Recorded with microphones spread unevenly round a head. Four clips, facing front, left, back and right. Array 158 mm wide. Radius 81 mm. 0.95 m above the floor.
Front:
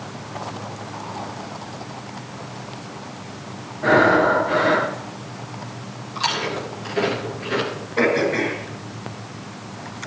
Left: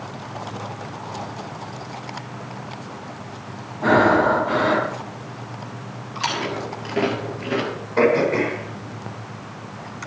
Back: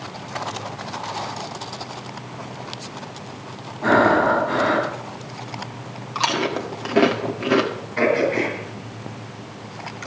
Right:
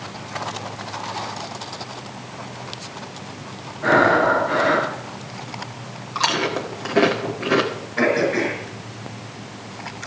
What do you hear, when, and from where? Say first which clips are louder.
3.8 s breathing: even, front 1 dB; 125° left, 3.5 m
6.2 s chewing: right 3 dB, back 3 dB; 155° right, 1.8 m
8.0 s throat clearing: left 2 dB, even; 85° left, 4 m